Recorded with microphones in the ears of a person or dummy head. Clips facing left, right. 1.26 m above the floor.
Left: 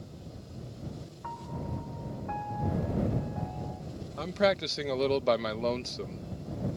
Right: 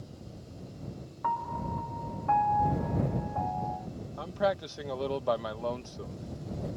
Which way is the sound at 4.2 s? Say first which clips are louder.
Left 3 dB; 30° left (ahead or behind).